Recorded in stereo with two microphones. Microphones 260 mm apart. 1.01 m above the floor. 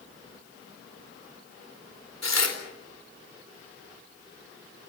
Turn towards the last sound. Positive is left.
turn(degrees=80)